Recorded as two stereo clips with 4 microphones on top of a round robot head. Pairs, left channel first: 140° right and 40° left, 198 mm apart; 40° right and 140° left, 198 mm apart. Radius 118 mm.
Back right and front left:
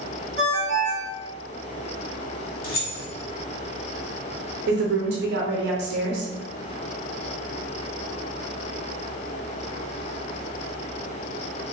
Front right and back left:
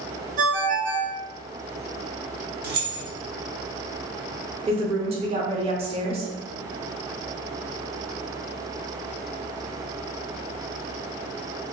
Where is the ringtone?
95° left, 0.7 m.